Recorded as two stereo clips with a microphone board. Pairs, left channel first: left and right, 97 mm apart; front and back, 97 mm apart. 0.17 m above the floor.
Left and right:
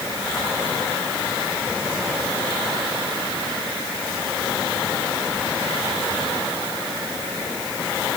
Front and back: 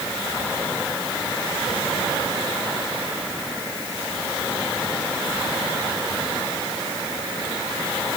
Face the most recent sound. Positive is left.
No sound to turn to.